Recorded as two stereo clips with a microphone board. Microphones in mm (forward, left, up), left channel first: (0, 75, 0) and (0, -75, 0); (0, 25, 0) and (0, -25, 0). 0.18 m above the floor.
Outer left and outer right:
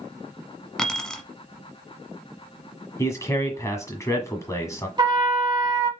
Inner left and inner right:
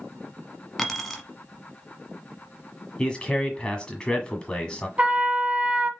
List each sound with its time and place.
0.8 s keys jangling: 5° left (ahead or behind), 1.1 m
3.0 s a man speaking: 20° left (ahead or behind), 1.4 m
5.0 s a trumpet: 30° right (ahead or behind), 1.0 m